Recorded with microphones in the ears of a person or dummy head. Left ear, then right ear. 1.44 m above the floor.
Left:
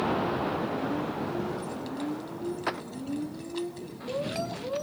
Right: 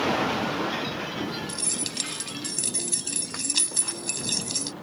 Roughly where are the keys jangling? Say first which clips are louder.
Right 3 dB; right.